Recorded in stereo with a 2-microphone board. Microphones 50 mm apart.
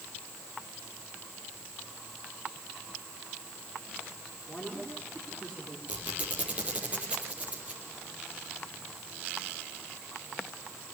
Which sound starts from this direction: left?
A man speaking, at 4.5 s.